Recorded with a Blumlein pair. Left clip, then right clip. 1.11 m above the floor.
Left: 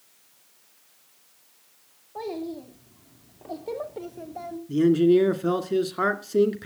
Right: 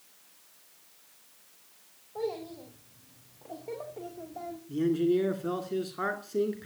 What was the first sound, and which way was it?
A child speaking, 70° left.